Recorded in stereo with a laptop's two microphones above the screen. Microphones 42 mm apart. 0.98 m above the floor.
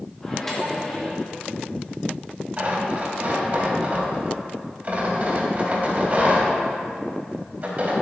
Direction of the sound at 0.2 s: 10° left (ahead or behind).